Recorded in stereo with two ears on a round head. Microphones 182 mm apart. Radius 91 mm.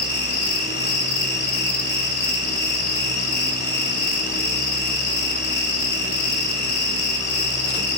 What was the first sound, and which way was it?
An insect, 50° left (ahead or behind).